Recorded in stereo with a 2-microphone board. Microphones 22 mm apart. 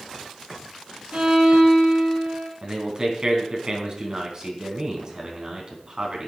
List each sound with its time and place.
1.1 s a violin: 70° right (ahead or behind), 3.5 m
2.6 s a man speaking: 35° right (ahead or behind), 3.5 m